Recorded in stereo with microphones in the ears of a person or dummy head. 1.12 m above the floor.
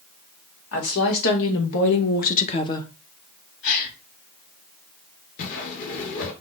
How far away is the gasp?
About 4 m.